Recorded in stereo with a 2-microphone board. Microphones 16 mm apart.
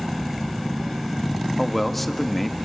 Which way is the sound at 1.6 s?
10° left (ahead or behind).